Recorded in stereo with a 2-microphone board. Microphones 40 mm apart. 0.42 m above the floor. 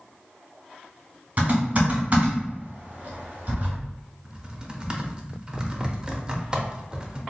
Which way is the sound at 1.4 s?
40° right (ahead or behind).